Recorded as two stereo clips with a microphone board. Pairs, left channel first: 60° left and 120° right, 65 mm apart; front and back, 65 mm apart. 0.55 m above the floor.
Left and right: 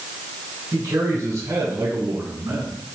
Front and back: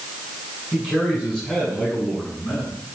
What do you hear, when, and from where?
0.7 s a man speaking: 80° right, 6 m; by 2.8 s 70° right, 6.5 m